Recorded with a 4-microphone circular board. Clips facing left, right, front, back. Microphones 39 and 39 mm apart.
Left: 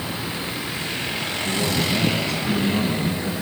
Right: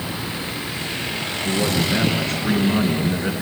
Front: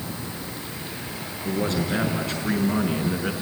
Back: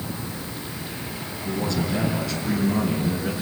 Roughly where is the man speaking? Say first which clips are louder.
Right 3 dB, front 1 dB; ahead right.